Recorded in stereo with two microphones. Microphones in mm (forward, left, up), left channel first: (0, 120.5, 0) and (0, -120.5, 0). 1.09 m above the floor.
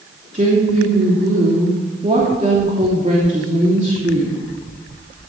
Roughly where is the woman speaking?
Right.